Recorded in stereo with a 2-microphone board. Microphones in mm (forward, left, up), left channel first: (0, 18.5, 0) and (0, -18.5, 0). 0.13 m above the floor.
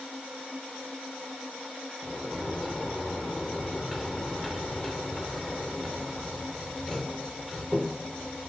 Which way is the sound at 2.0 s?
Centre (ahead or behind).